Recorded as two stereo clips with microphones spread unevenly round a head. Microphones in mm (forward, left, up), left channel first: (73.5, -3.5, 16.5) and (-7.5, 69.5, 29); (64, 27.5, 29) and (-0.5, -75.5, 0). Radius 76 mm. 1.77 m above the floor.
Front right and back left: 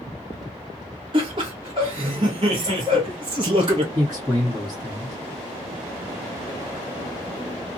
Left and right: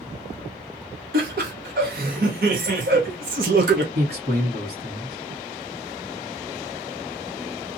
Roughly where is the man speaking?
Behind right.